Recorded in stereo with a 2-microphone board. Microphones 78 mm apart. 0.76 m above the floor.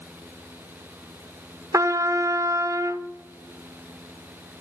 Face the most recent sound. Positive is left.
turn(degrees=-45)  # may be behind; listen again after turning